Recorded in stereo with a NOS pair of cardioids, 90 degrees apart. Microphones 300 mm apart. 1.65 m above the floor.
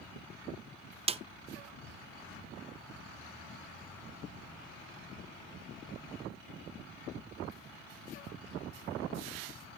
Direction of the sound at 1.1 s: 20° right.